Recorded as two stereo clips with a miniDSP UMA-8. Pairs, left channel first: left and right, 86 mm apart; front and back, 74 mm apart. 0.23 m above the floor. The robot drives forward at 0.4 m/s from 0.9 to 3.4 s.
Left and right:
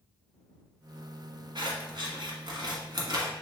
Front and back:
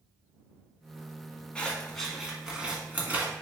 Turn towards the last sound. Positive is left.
turn(degrees=-120)